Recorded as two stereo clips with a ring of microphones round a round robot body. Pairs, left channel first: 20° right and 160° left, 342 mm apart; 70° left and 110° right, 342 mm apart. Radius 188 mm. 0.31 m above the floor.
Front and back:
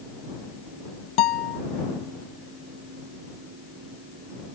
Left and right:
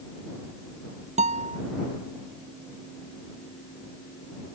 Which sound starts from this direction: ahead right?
A guitar, at 1.2 s.